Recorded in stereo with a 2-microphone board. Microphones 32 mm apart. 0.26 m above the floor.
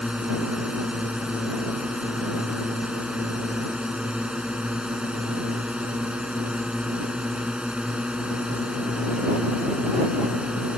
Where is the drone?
30° right (ahead or behind).